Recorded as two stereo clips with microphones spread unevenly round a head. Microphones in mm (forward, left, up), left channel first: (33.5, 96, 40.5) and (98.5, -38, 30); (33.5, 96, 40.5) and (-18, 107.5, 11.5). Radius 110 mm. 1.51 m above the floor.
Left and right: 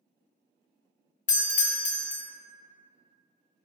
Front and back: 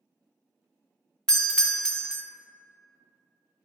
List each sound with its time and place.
1.3 s a doorbell: 90° left, 0.5 m